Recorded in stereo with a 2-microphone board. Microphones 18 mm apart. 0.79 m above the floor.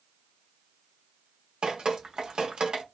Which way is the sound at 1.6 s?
65° right (ahead or behind).